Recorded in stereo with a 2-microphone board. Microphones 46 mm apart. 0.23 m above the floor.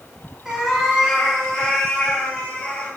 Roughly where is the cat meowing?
Centre.